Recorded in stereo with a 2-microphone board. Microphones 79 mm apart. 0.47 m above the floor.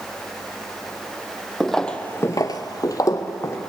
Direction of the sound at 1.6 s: Centre (ahead or behind).